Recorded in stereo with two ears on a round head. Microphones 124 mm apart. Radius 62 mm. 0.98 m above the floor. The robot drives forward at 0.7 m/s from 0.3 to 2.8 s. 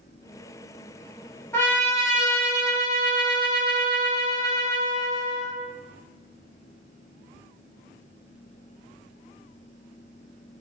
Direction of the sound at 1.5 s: 20° left (ahead or behind).